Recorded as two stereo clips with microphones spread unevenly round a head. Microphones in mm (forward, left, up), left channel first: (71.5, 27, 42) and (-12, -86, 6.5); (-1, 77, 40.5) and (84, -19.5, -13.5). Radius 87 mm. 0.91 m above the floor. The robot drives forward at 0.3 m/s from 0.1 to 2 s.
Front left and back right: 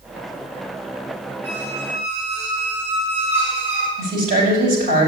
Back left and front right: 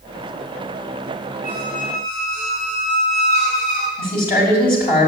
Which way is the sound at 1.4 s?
85° right.